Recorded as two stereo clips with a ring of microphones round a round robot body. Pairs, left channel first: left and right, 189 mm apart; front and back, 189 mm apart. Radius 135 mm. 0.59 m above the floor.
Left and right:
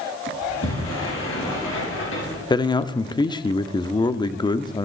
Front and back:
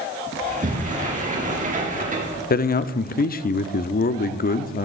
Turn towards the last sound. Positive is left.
turn(degrees=25)